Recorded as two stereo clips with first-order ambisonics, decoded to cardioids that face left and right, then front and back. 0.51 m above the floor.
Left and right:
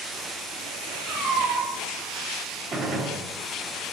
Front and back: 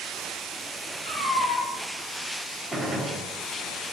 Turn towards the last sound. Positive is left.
turn(degrees=-100)